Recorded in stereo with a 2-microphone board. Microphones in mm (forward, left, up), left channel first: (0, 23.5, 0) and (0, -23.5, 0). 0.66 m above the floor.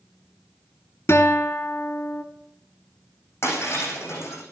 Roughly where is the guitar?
Left.